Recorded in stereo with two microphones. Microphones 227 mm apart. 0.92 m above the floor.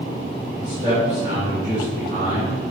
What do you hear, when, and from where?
0.6 s a man speaking: 30° right (ahead or behind), 1.9 m